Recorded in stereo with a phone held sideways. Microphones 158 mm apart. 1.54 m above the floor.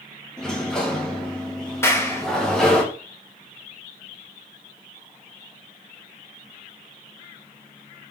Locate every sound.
0.4 s a sliding door: 5° left (ahead or behind), 1.5 m
1.8 s a clap: 15° left (ahead or behind), 1.3 m